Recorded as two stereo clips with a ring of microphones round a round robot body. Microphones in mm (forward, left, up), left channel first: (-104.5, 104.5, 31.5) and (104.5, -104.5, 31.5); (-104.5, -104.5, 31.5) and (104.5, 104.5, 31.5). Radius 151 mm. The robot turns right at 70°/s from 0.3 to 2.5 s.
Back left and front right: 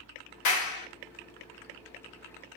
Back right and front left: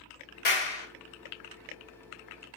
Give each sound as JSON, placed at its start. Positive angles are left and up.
{"t": 0.5, "sound": "a clap", "azimuth_deg": 165, "distance_m": 3.0}